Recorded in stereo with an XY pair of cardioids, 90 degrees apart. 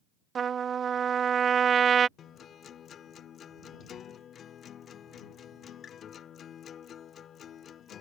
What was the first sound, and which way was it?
A trumpet, 55° right.